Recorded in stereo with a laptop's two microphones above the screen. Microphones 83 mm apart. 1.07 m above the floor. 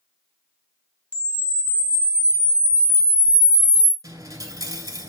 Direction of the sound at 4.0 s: 40° right (ahead or behind).